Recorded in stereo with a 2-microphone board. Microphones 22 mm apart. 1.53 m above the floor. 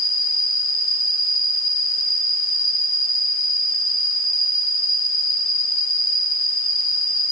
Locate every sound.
0.0 s an insect: 10° left (ahead or behind), 3 m